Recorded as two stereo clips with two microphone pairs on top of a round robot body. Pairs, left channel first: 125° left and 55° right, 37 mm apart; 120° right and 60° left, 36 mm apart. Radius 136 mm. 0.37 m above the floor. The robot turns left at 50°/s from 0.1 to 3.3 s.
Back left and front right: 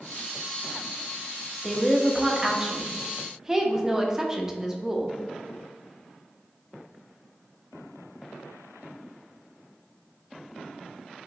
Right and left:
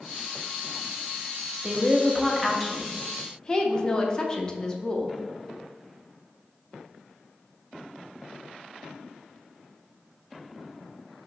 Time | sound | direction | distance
1.6 | a woman speaking | 10° left | 0.8 m